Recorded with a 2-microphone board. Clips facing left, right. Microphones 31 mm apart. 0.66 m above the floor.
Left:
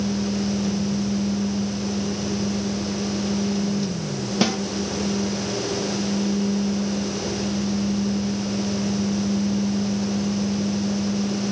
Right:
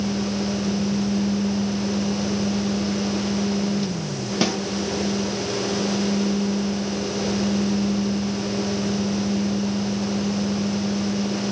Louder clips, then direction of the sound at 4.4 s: Left 1 dB; centre (ahead or behind).